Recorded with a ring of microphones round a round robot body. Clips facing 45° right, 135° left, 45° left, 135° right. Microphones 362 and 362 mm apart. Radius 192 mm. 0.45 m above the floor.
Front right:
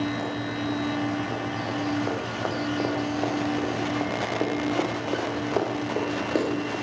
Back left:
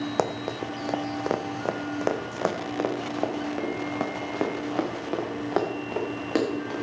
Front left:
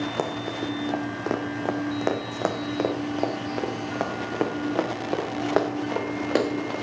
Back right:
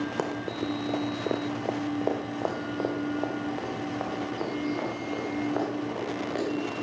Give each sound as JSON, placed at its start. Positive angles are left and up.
{"t": 0.2, "sound": "running footsteps", "azimuth_deg": 135, "distance_m": 1.3}